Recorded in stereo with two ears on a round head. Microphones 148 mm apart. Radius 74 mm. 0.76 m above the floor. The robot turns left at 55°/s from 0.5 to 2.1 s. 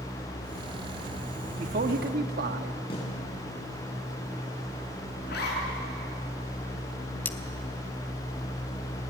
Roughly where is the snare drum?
Left.